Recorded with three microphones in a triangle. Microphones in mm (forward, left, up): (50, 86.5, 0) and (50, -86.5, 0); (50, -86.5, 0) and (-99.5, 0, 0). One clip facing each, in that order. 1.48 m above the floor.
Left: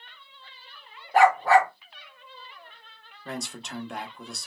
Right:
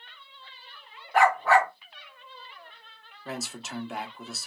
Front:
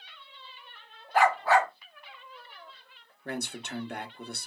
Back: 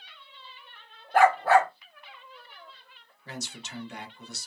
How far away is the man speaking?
About 0.9 m.